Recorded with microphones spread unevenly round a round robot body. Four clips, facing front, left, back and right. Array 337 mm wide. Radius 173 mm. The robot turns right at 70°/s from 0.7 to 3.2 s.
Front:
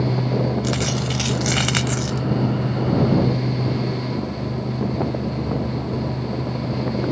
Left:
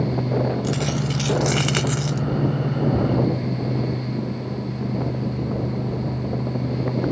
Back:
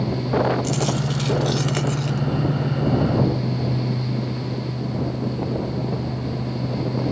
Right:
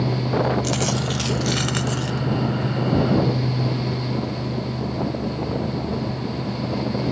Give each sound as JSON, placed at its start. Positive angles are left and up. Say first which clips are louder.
{"t": 0.6, "sound": "a dropped coin", "louder": "right 1 dB, even", "azimuth_deg": -45}